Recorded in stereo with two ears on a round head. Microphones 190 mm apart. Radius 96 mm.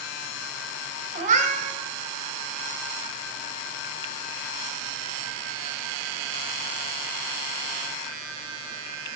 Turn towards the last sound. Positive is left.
turn(degrees=-35)  # may be behind; listen again after turning